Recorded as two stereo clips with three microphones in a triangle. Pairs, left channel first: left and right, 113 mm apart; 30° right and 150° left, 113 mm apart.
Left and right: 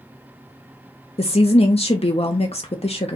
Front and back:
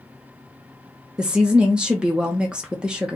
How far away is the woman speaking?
About 0.8 m.